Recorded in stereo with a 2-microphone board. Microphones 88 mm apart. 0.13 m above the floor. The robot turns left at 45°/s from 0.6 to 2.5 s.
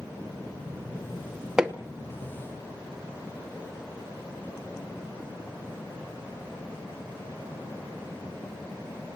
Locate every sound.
1.6 s hammering: 10° right (ahead or behind), 0.8 m; by 1.8 s 15° right (ahead or behind), 0.8 m